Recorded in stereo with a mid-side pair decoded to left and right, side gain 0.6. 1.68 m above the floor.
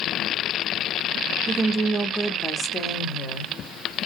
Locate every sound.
1.5 s a woman speaking: 25° right, 0.6 m; by 3.5 s 55° left, 1.1 m